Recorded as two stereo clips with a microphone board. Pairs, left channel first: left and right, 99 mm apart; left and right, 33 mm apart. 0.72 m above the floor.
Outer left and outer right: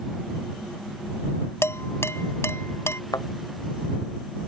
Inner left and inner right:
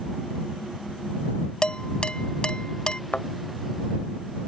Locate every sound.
1.6 s dishes clattering: 25° left (ahead or behind)
3.1 s a thud: 40° left (ahead or behind)